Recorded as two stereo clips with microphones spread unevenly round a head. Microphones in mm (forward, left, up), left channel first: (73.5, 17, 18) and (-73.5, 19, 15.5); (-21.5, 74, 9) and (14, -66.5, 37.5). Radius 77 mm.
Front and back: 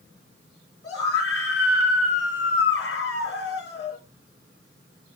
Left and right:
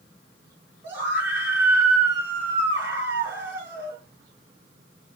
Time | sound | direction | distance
0.8 | a scream | straight ahead | 5 m